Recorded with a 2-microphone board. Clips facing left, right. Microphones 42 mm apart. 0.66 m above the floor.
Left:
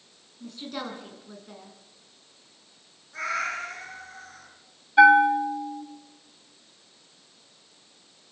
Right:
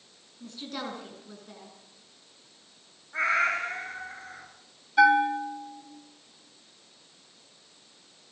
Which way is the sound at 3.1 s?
30° right (ahead or behind).